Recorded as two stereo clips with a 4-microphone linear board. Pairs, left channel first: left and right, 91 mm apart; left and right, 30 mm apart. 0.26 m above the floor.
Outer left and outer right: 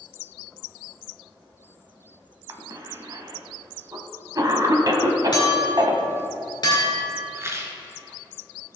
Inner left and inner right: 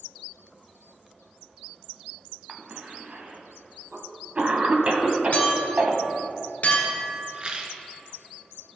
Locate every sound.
2.5 s a cough: 40° right (ahead or behind), 1.5 m
5.3 s a clink: 45° left (ahead or behind), 3 m
7.3 s a rattle: 30° right (ahead or behind), 1.1 m